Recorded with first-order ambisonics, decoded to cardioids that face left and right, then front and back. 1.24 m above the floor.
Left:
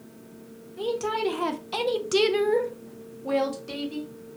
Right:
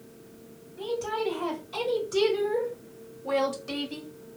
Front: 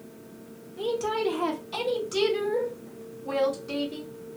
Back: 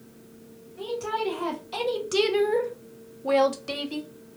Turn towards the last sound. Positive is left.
turn(degrees=-165)